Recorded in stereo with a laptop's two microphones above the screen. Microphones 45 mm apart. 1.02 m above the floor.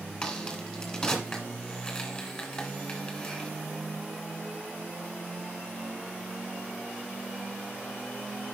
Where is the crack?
15° left (ahead or behind), 1.7 m.